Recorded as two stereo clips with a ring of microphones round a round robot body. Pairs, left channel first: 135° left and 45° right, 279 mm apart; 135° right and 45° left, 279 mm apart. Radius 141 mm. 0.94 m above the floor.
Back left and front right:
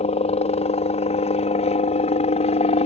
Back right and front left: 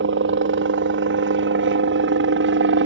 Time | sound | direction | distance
0.0 | a helicopter | 75° left | ?